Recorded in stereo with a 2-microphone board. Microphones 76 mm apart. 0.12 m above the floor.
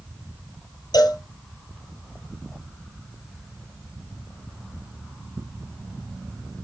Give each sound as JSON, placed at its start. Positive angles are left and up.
{"t": 0.9, "sound": "a cowbell", "side_deg": 60, "distance_m": 2.5}